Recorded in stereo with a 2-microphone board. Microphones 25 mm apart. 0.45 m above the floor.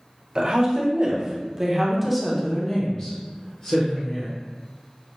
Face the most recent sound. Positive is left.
turn(degrees=45)  # may be behind; listen again after turning